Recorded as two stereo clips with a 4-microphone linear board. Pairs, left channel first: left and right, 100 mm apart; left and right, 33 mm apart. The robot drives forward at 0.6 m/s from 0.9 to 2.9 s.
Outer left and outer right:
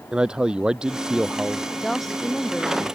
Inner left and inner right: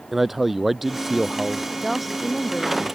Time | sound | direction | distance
0.1 | a man speaking | 10° right (ahead or behind) | ?
1.8 | a woman speaking | 5° left (ahead or behind) | ?